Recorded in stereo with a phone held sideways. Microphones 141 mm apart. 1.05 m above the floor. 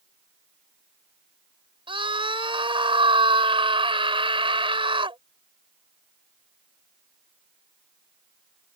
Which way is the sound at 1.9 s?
40° right (ahead or behind).